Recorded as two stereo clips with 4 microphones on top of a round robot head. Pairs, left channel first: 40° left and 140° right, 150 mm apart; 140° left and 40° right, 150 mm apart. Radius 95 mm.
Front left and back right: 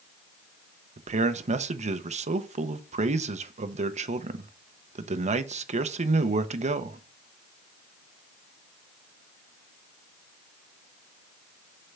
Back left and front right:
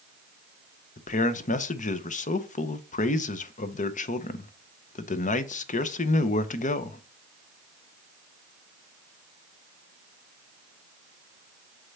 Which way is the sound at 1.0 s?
175° left.